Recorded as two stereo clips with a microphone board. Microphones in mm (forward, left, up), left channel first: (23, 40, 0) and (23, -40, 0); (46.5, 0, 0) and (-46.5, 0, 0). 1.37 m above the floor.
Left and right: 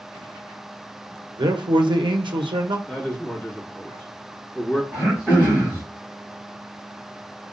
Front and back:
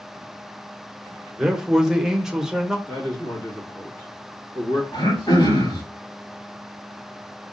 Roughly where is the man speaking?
Right.